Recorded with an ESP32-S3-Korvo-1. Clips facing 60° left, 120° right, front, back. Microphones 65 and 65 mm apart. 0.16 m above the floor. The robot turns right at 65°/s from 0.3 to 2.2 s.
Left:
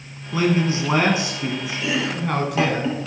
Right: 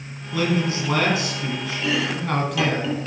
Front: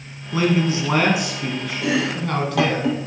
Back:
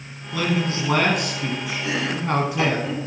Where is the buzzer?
I don't hear a buzzer.